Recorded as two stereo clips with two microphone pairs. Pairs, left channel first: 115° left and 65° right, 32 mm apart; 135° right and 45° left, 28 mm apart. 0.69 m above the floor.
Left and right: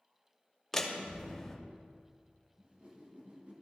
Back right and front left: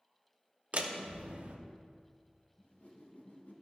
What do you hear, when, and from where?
0.7 s a door slam: 35° left, 0.9 m
2.6 s a whoosh: 120° right, 1.5 m